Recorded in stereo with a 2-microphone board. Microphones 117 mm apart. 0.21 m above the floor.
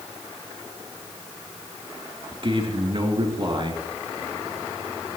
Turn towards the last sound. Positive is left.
turn(degrees=-45)  # may be behind; listen again after turning